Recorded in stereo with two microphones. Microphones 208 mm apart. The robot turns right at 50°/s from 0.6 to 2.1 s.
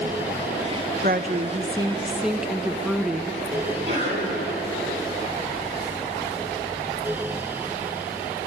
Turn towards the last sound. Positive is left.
turn(degrees=-35)  # may be behind; listen again after turning